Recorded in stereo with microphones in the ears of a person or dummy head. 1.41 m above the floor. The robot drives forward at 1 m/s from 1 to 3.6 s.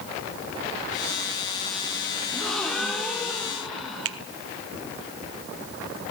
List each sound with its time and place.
2.3 s a gasp: 5° left (ahead or behind), 2.5 m; by 4.2 s centre (ahead or behind), 3.5 m
4.0 s a finger snap: 80° right, 1.0 m